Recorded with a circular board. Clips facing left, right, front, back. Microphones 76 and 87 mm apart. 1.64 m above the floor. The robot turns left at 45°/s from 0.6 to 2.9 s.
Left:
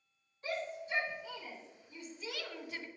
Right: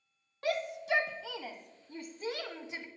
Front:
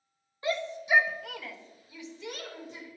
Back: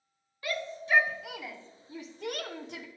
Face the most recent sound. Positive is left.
turn(degrees=-170)